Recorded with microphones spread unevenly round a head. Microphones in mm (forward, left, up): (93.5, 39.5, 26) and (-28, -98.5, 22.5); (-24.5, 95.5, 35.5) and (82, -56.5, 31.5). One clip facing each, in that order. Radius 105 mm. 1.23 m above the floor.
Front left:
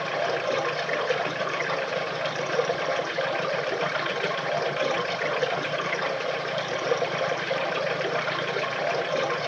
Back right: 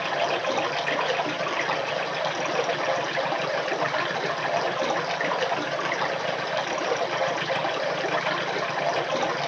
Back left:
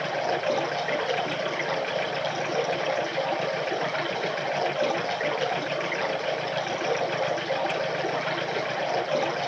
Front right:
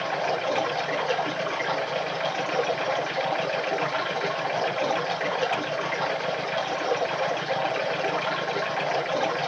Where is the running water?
160° right, 3.5 m.